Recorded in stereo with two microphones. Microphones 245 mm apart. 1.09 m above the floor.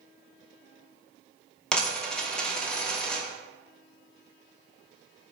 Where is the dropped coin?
5° left (ahead or behind), 0.6 m.